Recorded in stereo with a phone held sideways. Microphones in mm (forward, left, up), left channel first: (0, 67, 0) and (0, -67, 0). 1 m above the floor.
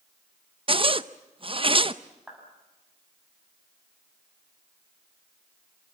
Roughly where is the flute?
No flute in this recording.